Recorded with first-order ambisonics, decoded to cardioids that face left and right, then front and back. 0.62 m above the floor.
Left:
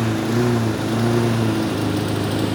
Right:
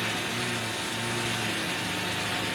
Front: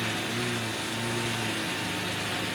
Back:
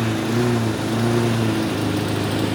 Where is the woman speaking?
No woman speaking in this recording.